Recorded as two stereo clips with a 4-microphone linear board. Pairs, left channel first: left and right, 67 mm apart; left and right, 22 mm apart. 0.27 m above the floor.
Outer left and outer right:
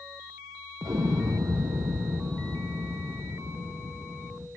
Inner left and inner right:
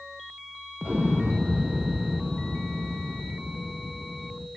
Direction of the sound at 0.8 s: 80° right.